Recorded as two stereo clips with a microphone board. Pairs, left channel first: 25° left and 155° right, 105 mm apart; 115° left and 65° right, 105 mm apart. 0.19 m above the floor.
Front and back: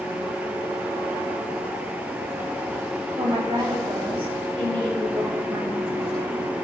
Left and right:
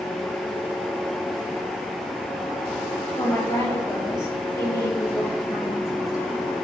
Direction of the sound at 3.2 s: 175° left.